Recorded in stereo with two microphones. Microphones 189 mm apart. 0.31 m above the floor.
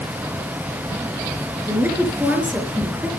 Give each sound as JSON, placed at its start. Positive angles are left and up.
{"t": 1.7, "sound": "a woman speaking", "side_deg": -10, "distance_m": 4.0}